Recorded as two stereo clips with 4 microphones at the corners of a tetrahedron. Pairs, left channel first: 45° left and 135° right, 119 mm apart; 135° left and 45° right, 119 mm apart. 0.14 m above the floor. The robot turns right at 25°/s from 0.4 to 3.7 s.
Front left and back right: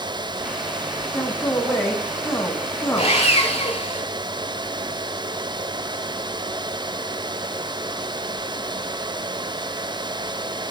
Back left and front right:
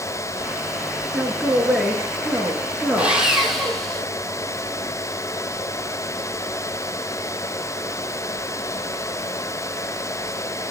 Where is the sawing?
35° left, 1.2 m; by 4.0 s 50° left, 1.2 m.